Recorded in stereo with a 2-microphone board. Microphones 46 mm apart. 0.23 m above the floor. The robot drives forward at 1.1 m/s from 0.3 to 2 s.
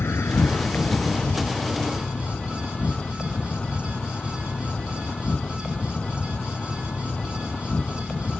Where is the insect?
60° left (ahead or behind); by 8.4 s 25° left (ahead or behind).